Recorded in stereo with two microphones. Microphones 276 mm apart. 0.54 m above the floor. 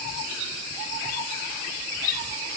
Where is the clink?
I don't hear a clink.